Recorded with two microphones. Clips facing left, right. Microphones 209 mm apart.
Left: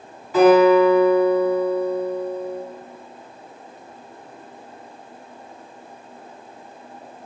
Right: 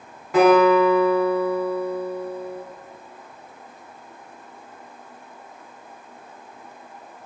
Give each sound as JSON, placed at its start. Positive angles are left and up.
{"t": 0.3, "sound": "a guitar", "side_deg": -70, "distance_m": 1.5}